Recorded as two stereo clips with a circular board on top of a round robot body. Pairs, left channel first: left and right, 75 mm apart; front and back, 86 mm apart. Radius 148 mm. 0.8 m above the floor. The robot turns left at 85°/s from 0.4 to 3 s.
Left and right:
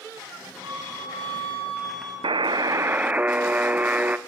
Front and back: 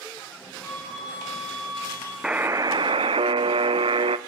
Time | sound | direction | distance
0.6 | a flute | 65° right | 9.5 m
2.2 | a buzzer | 100° right | 0.7 m